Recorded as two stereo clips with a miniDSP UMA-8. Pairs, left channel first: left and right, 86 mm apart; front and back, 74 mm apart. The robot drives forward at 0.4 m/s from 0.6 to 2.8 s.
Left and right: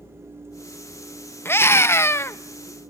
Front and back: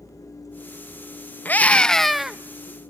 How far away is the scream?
About 0.6 m.